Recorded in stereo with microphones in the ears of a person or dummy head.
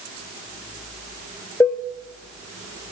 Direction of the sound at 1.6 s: 15° left (ahead or behind).